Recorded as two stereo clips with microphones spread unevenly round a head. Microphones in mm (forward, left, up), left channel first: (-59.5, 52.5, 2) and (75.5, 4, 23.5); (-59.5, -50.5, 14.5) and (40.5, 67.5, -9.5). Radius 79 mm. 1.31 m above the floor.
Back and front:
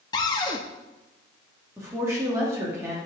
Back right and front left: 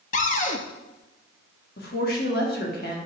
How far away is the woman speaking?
About 2.5 m.